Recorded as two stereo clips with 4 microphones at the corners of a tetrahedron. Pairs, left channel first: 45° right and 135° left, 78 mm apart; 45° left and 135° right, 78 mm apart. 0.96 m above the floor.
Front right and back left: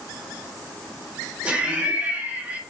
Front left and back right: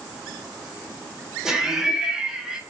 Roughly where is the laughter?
Behind.